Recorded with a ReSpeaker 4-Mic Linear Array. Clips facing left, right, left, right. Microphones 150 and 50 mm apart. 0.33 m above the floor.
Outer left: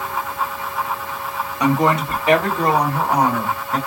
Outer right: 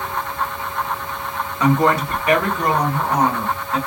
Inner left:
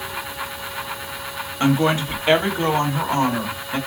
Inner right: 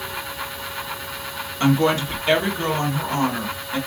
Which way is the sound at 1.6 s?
15° left (ahead or behind).